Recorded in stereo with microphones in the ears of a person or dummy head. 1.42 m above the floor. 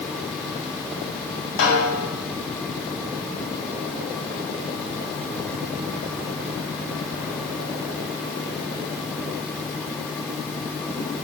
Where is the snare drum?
65° left (ahead or behind), 3.5 m.